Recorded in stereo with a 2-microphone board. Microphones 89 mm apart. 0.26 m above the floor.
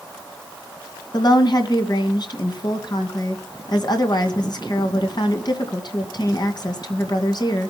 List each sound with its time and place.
1.1 s a woman speaking: 55° left (ahead or behind), 2 m